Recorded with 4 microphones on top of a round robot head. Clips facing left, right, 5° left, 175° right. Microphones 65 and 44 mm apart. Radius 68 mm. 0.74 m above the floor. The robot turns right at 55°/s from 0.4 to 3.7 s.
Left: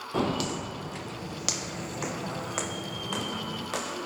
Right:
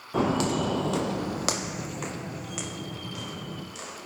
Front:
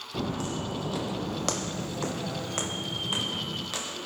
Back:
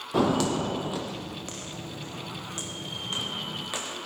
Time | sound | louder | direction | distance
0.1 | footsteps | right 4 dB, back 8 dB | 175° right | 1.3 m